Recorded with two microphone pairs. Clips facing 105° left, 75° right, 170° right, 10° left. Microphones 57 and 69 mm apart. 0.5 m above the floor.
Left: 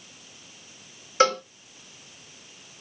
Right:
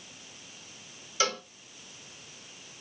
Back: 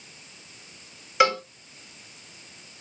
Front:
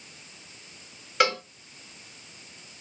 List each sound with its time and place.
1.2 s a cowbell: 105° left, 1.8 m